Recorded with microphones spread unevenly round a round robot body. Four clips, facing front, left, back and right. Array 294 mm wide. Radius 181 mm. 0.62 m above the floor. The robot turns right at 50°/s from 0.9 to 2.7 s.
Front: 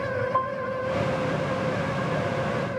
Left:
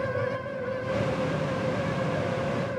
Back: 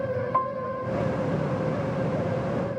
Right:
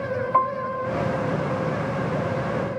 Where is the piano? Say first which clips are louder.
Right 9 dB, even; 100° right.